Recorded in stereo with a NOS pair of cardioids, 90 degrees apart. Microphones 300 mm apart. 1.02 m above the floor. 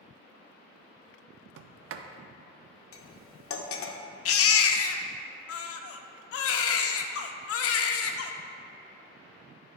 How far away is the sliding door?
About 0.5 m.